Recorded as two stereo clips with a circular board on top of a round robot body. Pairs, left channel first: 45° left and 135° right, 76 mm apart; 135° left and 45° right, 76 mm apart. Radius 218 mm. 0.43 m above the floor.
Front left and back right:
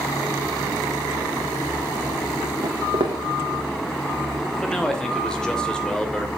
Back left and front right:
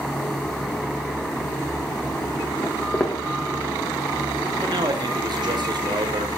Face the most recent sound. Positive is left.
turn(degrees=-35)